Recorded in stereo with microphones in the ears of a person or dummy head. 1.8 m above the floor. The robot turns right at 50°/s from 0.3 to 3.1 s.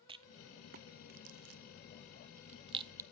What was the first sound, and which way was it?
A rattle, 25° right (ahead or behind).